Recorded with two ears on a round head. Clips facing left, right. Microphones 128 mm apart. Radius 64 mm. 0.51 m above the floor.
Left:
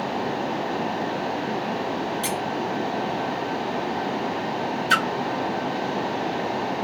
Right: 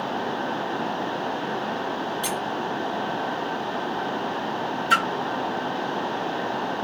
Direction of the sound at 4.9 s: 40° left (ahead or behind).